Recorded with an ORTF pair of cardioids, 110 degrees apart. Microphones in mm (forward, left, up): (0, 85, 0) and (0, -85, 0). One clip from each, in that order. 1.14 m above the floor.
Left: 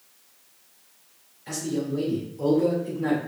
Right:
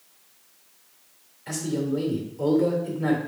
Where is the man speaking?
15° right, 1.9 m.